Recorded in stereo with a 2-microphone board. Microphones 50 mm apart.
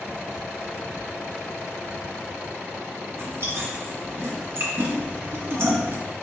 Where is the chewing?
55° right (ahead or behind), 1.1 m.